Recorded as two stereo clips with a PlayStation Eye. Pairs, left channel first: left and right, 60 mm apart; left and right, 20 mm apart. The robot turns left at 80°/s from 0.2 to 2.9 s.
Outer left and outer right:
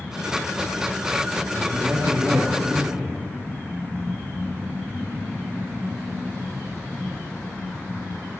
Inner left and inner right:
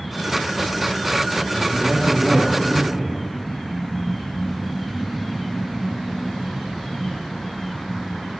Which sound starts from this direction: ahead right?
A man speaking, at 1.6 s.